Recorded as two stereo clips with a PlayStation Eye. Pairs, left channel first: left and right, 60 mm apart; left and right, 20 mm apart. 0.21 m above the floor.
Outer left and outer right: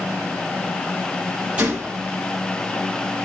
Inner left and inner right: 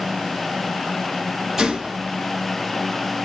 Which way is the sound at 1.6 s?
20° right (ahead or behind).